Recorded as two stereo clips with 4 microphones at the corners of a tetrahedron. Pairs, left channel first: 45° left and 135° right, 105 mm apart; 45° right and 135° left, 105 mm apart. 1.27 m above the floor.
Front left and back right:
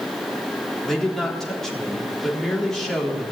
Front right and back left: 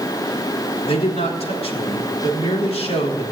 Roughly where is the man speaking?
Ahead right.